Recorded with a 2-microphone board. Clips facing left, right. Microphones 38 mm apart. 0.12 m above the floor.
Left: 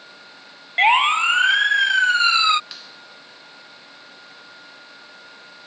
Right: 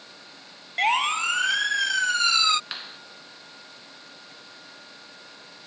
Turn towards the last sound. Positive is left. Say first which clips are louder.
# right 3 dB
turn(degrees=-35)  # may be behind; listen again after turning